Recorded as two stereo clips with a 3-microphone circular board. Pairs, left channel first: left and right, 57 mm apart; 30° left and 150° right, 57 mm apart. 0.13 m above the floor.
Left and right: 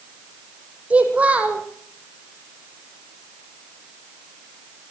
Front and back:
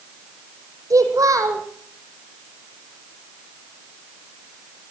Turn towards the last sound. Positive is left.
turn(degrees=-155)